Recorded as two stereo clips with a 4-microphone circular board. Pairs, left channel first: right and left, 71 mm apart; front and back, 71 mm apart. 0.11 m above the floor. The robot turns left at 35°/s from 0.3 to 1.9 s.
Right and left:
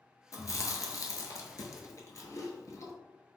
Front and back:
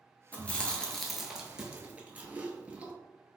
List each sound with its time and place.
0.3 s chewing: 65° right, 0.7 m; by 2.9 s 120° right, 0.7 m